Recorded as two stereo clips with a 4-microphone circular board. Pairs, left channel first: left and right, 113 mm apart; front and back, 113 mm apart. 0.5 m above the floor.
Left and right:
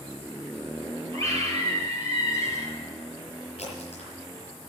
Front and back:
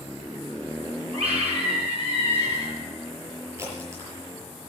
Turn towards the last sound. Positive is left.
turn(degrees=115)